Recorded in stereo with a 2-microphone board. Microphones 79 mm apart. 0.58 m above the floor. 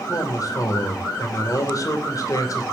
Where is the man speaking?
50° left (ahead or behind), 2.5 m.